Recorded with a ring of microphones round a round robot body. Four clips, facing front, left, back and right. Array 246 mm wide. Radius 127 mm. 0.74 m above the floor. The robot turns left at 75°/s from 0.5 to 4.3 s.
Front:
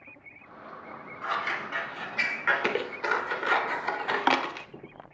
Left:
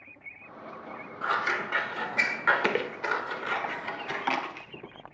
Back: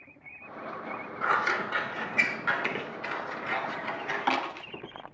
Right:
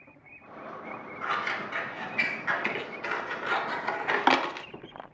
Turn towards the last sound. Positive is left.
turn(degrees=-60)